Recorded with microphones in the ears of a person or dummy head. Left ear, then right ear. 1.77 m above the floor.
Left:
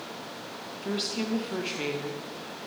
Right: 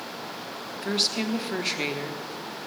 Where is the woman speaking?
20° right (ahead or behind), 1.6 m.